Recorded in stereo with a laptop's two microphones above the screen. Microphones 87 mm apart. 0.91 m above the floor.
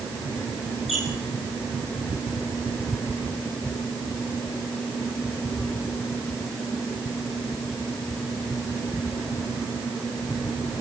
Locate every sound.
0.9 s a squeak: centre (ahead or behind), 9.5 m